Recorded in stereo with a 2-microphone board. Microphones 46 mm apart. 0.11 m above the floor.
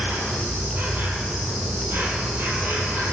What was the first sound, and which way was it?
An insect, 50° right (ahead or behind).